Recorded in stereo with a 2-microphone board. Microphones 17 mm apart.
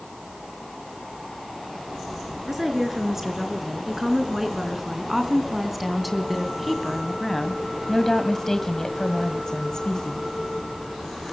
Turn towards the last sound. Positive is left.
turn(degrees=45)  # may be behind; listen again after turning